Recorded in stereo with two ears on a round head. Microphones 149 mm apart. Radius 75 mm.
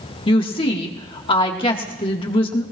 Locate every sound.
0.3 s a woman speaking: 30° left (ahead or behind), 1.7 m